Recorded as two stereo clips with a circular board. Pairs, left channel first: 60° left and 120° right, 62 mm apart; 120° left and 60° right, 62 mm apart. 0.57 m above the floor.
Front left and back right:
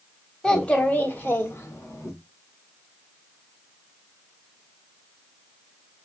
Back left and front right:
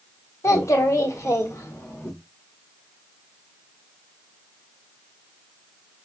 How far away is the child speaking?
About 1.1 m.